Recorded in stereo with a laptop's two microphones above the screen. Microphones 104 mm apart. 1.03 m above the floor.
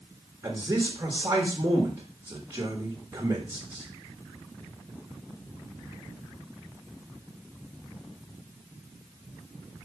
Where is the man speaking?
25° right (ahead or behind), 1.2 m.